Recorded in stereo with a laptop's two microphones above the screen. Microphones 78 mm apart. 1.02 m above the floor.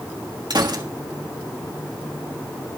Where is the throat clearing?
I don't hear throat clearing.